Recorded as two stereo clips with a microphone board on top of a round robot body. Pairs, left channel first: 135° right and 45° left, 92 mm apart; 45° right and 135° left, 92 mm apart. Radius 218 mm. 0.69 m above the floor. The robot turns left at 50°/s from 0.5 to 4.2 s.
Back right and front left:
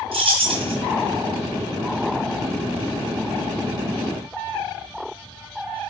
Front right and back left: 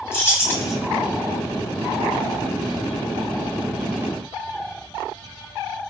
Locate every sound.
0.1 s keys jangling: 25° left, 1.5 m; by 0.7 s 10° left, 1.5 m